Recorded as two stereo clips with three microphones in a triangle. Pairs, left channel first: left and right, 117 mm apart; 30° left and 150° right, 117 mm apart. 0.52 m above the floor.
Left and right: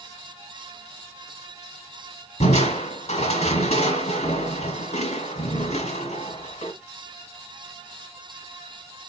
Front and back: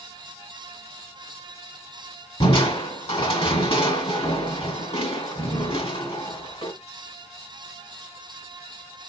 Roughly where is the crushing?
Left.